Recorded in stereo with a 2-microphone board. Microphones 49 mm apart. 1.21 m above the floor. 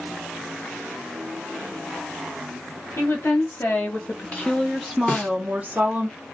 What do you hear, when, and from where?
3.0 s a woman speaking: 65° left (ahead or behind), 1.3 m; by 6.1 s 35° right (ahead or behind), 1.1 m
5.1 s a snare drum: 30° left (ahead or behind), 1.0 m